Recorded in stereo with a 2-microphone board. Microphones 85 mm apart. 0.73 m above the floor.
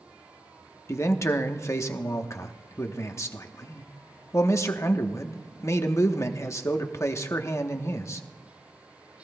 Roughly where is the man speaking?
Left.